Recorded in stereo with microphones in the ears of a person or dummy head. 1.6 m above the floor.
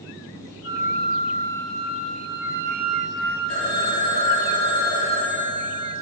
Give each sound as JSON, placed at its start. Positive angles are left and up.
{"t": 0.6, "sound": "a flute", "side_deg": 0, "distance_m": 1.8}
{"t": 3.5, "sound": "a phone ringing", "side_deg": 35, "distance_m": 2.5}